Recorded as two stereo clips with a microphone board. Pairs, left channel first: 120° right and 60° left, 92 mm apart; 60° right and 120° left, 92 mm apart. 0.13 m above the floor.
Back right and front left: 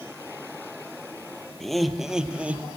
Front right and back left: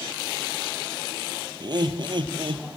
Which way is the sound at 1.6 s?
155° left.